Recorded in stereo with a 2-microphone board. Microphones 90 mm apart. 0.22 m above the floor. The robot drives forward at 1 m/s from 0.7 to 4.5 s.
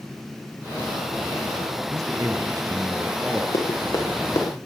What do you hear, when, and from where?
1.9 s a man speaking: 45° right (ahead or behind), 1.3 m; by 3.4 s 25° right (ahead or behind), 2 m
3.5 s running footsteps: 50° left (ahead or behind), 3.5 m; by 4.5 s 40° left (ahead or behind), 4 m